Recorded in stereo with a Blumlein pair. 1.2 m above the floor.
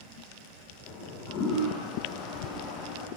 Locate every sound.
0.9 s a toilet flushing: 25° left, 9 m